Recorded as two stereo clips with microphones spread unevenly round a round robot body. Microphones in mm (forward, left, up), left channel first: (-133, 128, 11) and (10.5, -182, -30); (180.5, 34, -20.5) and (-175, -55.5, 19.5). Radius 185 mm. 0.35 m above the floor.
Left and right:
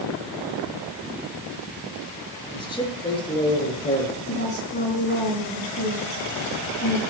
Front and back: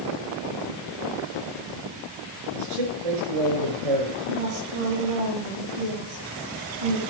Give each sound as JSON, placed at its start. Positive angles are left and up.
{"t": 2.5, "sound": "a man speaking", "azimuth_deg": -170, "distance_m": 5.5}
{"t": 4.3, "sound": "a woman speaking", "azimuth_deg": 175, "distance_m": 3.5}